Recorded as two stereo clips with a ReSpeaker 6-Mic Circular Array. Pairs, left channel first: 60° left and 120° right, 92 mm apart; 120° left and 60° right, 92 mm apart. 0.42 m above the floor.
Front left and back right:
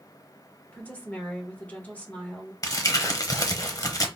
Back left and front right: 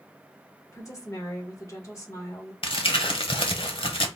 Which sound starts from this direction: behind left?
A woman speaking, at 0.7 s.